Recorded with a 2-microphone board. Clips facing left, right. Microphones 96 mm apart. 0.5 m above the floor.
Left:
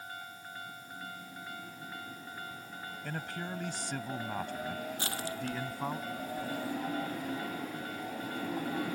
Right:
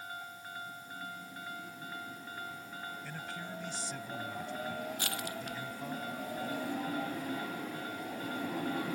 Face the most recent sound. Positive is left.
turn(degrees=30)  # may be behind; listen again after turning